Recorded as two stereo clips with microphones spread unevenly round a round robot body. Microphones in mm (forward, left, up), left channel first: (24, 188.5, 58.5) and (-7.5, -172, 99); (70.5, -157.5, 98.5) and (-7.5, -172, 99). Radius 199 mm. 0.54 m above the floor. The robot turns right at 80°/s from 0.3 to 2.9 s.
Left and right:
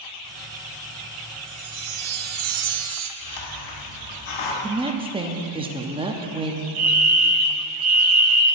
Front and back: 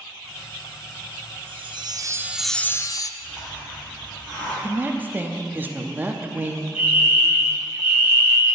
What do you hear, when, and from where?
1.5 s a chime: 160° right, 0.7 m; by 3.1 s 45° right, 0.7 m
3.2 s a hiss: 85° left, 1.9 m
4.6 s a woman speaking: 165° right, 0.9 m
6.8 s a fire alarm: 95° right, 3 m